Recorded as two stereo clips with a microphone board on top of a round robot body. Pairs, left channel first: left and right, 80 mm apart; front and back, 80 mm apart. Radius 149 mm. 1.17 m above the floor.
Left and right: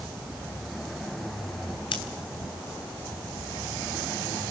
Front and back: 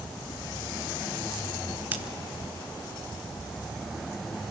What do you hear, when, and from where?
1.9 s scissors: 110° left, 0.9 m